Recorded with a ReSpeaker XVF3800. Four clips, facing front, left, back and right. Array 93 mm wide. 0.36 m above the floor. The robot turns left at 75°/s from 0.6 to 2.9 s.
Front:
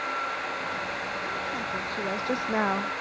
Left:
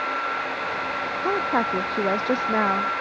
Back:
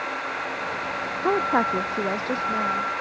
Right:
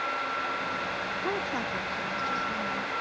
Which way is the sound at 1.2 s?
165° left.